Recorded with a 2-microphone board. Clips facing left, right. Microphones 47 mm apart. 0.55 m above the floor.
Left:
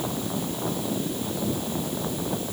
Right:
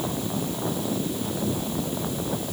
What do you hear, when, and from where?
Only background noise.